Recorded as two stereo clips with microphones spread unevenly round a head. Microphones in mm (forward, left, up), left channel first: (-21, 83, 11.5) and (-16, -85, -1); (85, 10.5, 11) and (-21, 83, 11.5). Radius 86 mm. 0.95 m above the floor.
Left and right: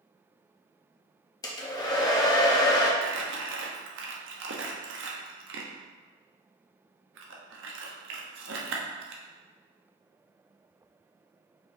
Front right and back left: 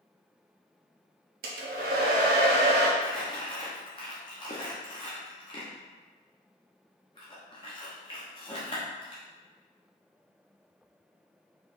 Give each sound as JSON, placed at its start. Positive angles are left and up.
{"t": 1.4, "sound": "a hair dryer", "azimuth_deg": 160, "distance_m": 0.8}
{"t": 3.0, "sound": "crumpling", "azimuth_deg": -100, "distance_m": 0.8}